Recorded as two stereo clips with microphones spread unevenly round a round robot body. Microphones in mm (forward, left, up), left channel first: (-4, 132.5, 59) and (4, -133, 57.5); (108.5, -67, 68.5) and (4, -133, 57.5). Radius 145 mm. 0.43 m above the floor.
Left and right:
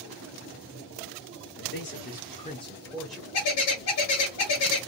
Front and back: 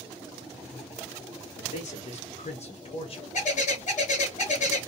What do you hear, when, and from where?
1.6 s a man speaking: 60° left, 1.4 m; by 3.2 s straight ahead, 1.1 m
3.3 s a bird: 65° left, 1.2 m